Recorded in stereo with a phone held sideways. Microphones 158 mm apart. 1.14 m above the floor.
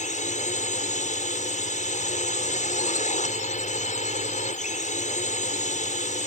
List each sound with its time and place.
0.0 s a drone: 50° left (ahead or behind)